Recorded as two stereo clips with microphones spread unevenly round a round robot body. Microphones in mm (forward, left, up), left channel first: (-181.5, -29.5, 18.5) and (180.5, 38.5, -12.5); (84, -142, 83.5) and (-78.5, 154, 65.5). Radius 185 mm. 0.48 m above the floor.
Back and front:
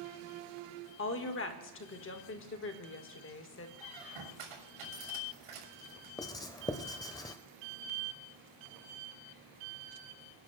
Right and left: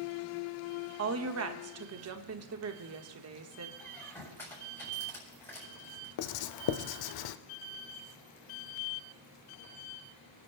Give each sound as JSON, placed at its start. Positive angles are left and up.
{"t": 1.0, "sound": "a woman speaking", "azimuth_deg": 140, "distance_m": 1.3}
{"t": 3.8, "sound": "a squeak", "azimuth_deg": 20, "distance_m": 7.0}
{"t": 6.2, "sound": "writing", "azimuth_deg": -90, "distance_m": 0.6}